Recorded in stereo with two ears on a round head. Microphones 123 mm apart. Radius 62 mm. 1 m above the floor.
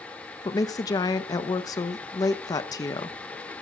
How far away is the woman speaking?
About 0.8 m.